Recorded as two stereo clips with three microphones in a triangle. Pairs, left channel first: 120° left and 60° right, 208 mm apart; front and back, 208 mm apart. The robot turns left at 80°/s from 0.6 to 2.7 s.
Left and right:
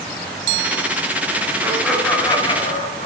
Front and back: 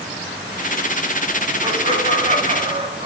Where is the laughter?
125° right, 1.3 m; by 3.1 s 145° left, 1.3 m.